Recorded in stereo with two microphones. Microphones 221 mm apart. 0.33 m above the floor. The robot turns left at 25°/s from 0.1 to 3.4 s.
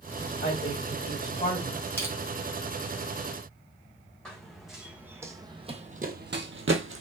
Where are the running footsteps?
5° left (ahead or behind), 1.2 m; by 7.0 s 65° right (ahead or behind), 0.7 m.